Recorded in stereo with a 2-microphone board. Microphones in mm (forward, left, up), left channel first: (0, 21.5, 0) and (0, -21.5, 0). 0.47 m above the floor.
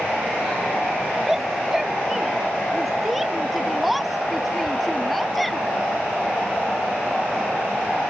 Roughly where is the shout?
Centre.